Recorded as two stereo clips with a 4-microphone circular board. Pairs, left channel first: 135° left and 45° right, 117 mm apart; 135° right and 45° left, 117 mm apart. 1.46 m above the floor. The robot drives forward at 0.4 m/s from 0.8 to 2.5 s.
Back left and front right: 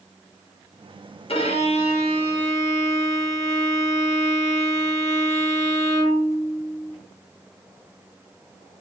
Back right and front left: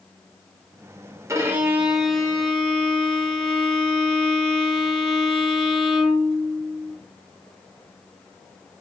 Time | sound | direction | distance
1.3 | a violin | 105° left | 0.6 m